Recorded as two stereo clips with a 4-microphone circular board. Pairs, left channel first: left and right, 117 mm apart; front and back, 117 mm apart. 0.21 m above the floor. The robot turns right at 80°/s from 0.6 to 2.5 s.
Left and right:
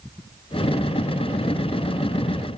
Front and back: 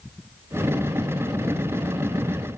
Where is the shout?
I don't hear a shout.